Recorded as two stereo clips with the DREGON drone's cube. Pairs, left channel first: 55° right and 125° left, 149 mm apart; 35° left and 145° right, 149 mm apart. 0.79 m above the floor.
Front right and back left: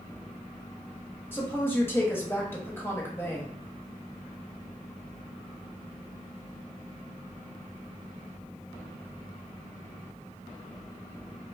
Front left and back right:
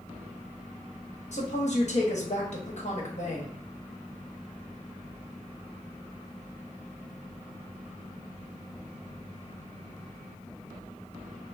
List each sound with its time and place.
1.3 s a woman speaking: 15° left, 1.2 m